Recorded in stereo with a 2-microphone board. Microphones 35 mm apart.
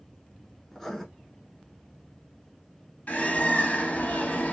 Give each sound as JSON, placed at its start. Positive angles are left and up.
{"t": 0.7, "sound": "writing", "side_deg": 10, "distance_m": 0.7}
{"t": 3.1, "sound": "a bird", "side_deg": 45, "distance_m": 0.7}